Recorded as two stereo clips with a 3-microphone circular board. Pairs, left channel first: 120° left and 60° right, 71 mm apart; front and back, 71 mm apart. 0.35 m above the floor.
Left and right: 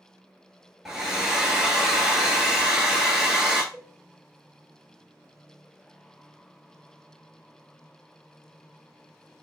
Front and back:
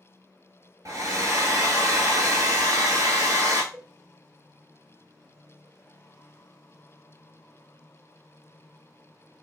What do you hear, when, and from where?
0.8 s a hair dryer: 145° right, 0.8 m
3.7 s dishes clattering: 100° right, 0.7 m